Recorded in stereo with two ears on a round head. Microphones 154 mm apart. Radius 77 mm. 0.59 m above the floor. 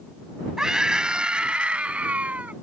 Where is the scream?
5° right (ahead or behind); by 2.5 s 10° right (ahead or behind).